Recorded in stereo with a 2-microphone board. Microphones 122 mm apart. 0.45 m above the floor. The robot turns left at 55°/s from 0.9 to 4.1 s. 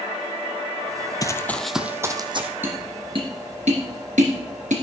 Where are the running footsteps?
30° left (ahead or behind), 0.6 m; by 2.5 s 50° right (ahead or behind), 1.3 m.